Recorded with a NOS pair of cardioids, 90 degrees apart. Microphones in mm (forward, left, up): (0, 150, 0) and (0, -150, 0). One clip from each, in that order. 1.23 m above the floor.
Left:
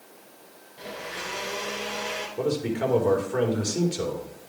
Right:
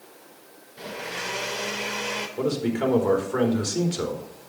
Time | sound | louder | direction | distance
0.8 | a blender | right 2 dB | 40° right | 3.5 m
2.4 | a man speaking | even | 15° right | 3.5 m